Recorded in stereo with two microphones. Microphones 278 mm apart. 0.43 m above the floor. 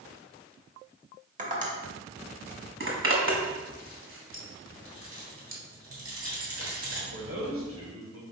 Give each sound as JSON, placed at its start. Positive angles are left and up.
{"t": 1.4, "sound": "tapping", "side_deg": -25, "distance_m": 1.0}
{"t": 2.8, "sound": "a zipper", "side_deg": -45, "distance_m": 1.0}
{"t": 4.8, "sound": "keys jangling", "side_deg": -50, "distance_m": 1.1}
{"t": 7.1, "sound": "a man speaking", "side_deg": -50, "distance_m": 1.4}